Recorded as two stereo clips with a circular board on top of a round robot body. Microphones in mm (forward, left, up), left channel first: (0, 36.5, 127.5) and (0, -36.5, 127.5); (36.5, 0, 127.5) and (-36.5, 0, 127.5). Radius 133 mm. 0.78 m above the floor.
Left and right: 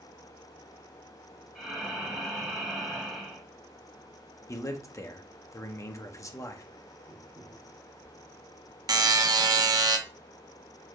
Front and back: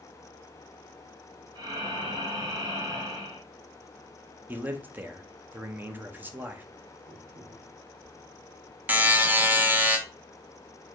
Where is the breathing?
175° left, 2 m.